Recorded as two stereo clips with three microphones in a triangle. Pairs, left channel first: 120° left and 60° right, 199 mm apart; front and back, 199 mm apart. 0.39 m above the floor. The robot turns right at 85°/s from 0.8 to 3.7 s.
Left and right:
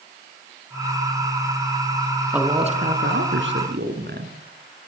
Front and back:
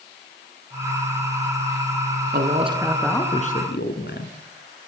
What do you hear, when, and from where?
2.3 s a man speaking: 145° right, 4 m; by 4.3 s 30° right, 4 m